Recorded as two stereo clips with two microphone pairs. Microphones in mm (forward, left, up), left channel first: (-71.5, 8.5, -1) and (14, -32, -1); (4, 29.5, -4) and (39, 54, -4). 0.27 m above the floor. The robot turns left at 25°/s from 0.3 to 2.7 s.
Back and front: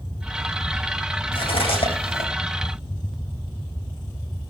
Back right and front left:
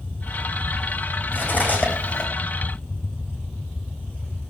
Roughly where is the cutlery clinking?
Behind.